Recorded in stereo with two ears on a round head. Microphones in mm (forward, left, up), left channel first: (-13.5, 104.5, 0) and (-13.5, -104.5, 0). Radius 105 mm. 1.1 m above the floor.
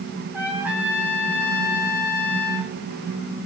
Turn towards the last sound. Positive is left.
turn(degrees=-5)  # may be behind; listen again after turning